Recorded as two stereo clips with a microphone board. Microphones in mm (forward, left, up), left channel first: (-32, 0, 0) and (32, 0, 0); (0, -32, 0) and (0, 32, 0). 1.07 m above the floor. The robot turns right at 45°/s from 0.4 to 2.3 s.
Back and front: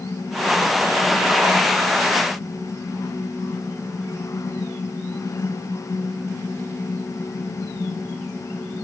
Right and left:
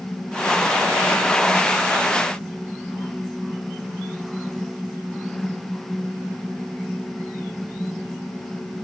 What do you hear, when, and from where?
Only background noise.